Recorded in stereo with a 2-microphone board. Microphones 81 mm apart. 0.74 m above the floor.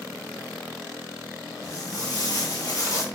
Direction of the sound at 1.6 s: 40° left (ahead or behind).